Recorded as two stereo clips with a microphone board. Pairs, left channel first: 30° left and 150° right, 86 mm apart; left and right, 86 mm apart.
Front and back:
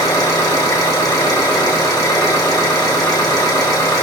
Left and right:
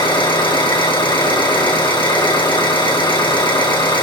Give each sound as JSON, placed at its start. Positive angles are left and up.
{"t": 0.0, "sound": "an engine running", "azimuth_deg": 75, "distance_m": 5.0}